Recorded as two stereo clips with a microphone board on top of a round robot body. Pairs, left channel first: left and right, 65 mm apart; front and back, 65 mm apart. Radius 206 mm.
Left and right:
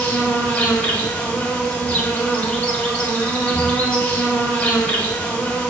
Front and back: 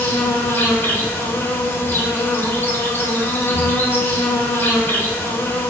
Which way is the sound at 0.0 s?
30° left.